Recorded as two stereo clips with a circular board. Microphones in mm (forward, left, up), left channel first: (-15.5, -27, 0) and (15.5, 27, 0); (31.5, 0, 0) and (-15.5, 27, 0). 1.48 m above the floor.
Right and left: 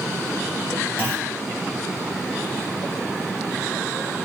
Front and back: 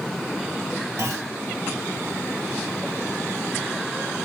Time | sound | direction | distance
1.0 | a clunk | 120° left | 3.5 m